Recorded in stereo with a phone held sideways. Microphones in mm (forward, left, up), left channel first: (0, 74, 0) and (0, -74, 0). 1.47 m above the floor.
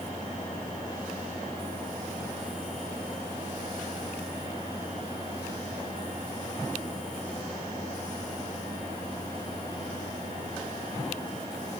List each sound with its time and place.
Only background noise.